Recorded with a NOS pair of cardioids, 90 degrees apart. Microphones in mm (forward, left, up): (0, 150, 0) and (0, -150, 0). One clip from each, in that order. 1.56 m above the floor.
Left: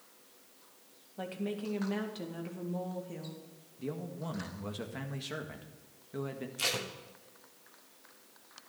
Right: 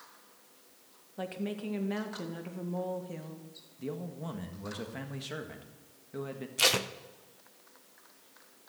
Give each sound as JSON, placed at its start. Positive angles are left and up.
{"t": 1.2, "sound": "a woman speaking", "azimuth_deg": -10, "distance_m": 2.0}
{"t": 3.8, "sound": "a man speaking", "azimuth_deg": 0, "distance_m": 1.6}
{"t": 6.6, "sound": "tape being pulled", "azimuth_deg": -40, "distance_m": 0.9}